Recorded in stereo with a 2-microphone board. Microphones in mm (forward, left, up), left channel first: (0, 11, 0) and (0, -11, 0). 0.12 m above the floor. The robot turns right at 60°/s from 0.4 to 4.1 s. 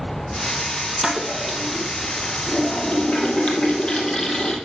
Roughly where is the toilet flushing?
Ahead right.